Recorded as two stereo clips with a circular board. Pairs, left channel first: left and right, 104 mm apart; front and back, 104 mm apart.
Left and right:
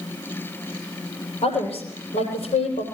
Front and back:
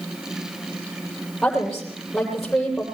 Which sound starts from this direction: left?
A woman speaking, at 1.4 s.